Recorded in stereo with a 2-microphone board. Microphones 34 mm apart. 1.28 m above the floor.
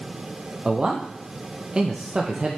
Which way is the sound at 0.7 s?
25° right (ahead or behind).